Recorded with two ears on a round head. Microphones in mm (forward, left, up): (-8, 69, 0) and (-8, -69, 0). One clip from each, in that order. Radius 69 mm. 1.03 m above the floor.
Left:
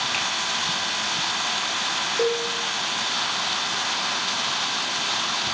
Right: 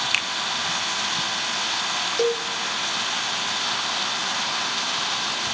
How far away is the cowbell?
About 0.8 m.